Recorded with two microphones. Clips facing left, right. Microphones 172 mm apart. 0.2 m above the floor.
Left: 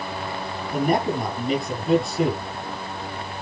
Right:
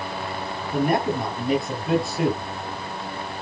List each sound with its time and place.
0.7 s a man speaking: centre (ahead or behind), 5 m